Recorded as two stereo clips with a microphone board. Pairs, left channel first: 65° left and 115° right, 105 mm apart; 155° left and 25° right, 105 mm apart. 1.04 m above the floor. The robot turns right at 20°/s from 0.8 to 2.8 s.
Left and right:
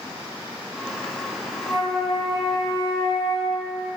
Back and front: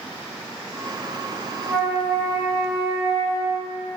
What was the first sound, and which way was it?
A flute, 75° left.